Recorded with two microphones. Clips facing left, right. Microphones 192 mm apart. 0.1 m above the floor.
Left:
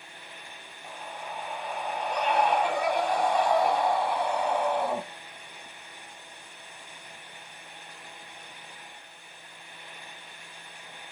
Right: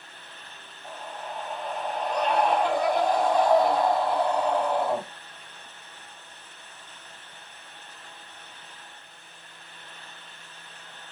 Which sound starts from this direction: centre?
A scream, at 0.8 s.